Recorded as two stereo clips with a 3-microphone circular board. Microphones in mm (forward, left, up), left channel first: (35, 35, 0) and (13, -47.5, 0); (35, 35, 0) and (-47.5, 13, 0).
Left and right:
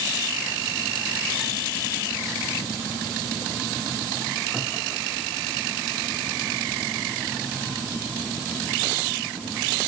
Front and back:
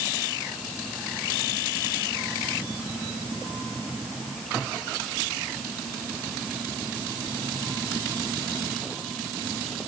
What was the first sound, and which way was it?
Only background noise.